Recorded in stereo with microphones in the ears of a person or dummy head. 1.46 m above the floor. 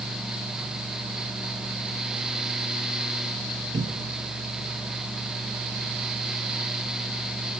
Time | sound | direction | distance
3.7 | a cupboard door | 30° right (ahead or behind) | 1.0 m